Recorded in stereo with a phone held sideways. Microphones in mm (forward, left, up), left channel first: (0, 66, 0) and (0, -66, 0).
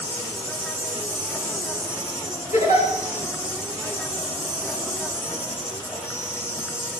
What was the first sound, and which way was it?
An insect, 20° left (ahead or behind).